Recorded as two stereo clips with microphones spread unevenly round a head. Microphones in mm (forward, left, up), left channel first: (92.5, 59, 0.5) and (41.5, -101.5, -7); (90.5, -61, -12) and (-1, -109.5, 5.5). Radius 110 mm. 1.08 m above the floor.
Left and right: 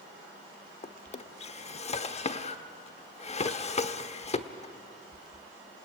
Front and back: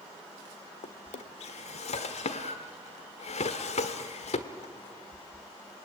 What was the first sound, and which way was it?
A drawer, 25° left.